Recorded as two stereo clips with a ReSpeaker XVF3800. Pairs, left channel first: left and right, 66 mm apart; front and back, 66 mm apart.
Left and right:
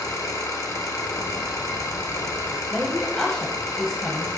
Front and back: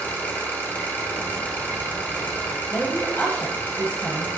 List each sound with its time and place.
0.0 s an engine running: 60° left, 3 m
1.2 s hammering: 105° left, 0.5 m
2.7 s a woman speaking: 15° left, 1.2 m